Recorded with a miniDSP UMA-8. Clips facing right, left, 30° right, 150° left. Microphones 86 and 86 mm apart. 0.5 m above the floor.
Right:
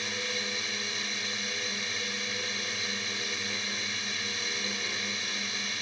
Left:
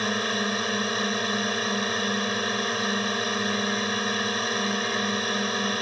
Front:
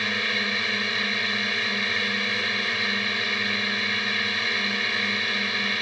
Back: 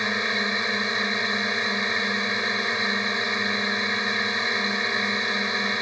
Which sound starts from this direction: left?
A drone, at 0.0 s.